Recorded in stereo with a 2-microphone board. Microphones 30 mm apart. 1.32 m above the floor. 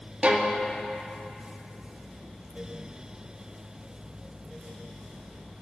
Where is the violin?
40° right (ahead or behind), 0.6 m.